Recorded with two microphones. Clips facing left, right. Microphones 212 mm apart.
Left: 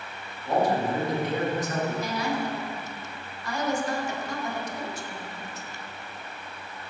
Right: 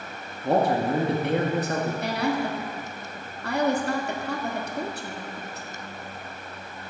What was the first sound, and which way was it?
A man speaking, 60° right (ahead or behind).